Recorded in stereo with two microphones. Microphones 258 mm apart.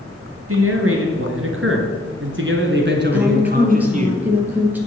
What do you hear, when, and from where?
0.5 s a man speaking: 60° right (ahead or behind), 3 m; by 4.1 s 25° right (ahead or behind), 1.8 m
3.1 s a woman speaking: 5° right (ahead or behind), 3.5 m